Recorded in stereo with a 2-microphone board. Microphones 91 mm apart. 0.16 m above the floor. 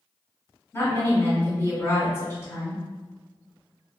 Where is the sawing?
No sawing in this recording.